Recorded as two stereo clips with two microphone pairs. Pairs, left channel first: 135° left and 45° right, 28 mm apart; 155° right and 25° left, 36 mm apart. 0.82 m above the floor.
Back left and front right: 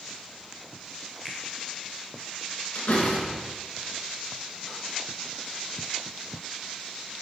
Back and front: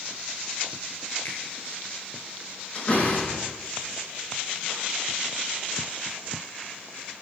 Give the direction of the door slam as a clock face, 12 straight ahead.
7 o'clock.